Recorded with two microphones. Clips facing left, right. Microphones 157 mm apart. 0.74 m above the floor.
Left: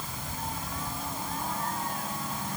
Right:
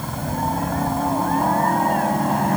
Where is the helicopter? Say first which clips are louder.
Right 13 dB; 60° right (ahead or behind); by 2.6 s 70° right (ahead or behind).